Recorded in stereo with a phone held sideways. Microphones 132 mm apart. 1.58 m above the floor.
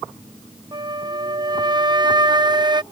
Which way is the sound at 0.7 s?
35° right (ahead or behind).